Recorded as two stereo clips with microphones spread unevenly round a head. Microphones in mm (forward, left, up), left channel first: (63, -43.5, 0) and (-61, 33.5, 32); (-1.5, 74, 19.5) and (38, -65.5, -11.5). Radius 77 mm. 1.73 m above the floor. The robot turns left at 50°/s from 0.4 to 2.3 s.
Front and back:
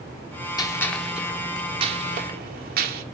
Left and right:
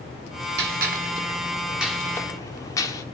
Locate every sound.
0.6 s a gunshot: 100° right, 1.2 m; by 3.0 s 175° left, 1.2 m